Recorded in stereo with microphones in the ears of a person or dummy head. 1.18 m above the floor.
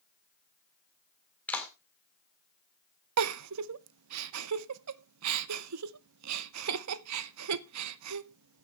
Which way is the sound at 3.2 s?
85° right.